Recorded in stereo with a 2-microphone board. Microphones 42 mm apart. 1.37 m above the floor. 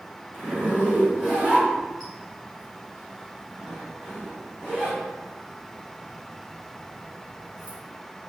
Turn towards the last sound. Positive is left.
turn(degrees=20)  # may be behind; listen again after turning